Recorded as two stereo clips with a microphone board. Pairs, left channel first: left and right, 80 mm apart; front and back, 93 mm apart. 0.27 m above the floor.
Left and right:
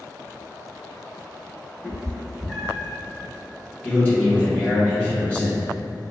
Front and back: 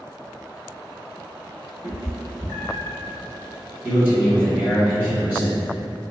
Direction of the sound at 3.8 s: 130° left.